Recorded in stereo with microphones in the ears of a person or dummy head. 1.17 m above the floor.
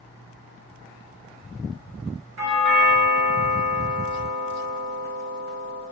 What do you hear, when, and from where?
2.4 s a doorbell: 75° right (ahead or behind), 2 m